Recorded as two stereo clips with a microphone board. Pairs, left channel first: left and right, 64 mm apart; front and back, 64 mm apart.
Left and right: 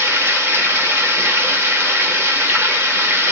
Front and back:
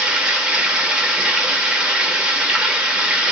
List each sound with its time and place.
0.0 s running water: 110° right, 1.3 m